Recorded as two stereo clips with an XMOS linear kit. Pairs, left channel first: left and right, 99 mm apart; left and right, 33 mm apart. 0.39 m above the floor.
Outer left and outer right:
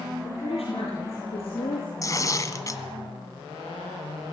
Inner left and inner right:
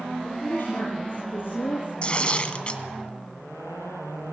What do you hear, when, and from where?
0.2 s a woman speaking: 80° left, 9 m; by 1.9 s 75° left (ahead or behind), 10.5 m
2.0 s tearing paper: 35° left (ahead or behind), 1.7 m